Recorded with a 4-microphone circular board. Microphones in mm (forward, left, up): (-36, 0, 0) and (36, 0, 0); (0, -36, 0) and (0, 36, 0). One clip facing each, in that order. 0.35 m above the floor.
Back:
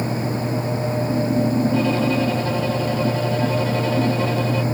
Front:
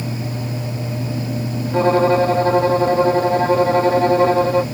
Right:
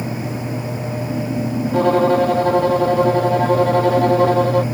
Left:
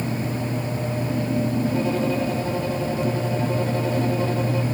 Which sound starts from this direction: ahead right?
A violin, at 1.7 s.